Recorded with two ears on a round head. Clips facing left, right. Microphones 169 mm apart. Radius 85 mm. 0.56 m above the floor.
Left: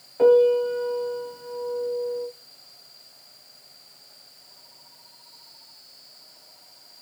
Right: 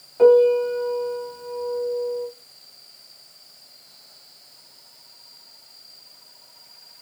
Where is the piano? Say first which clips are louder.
Right 2 dB; 5° left (ahead or behind), 1.4 m.